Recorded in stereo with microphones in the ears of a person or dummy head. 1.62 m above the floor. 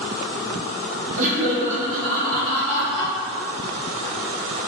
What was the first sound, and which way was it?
Laughter, 35° right (ahead or behind).